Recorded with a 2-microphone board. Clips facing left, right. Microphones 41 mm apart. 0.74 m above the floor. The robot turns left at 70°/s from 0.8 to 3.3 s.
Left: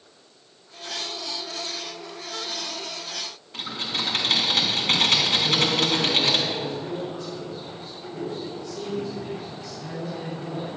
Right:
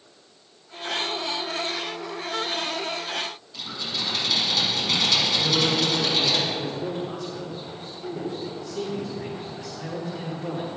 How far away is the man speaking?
About 4 m.